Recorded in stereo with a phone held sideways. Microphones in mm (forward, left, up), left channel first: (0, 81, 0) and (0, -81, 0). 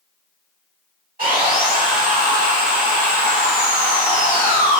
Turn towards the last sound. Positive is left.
turn(degrees=-60)  # may be behind; listen again after turning